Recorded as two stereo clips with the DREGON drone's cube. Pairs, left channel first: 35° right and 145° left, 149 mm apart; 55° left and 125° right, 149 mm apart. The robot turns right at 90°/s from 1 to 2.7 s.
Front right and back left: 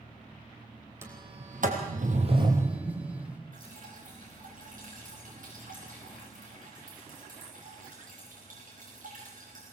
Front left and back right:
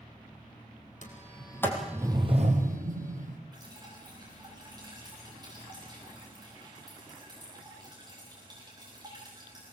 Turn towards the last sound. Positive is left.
turn(degrees=175)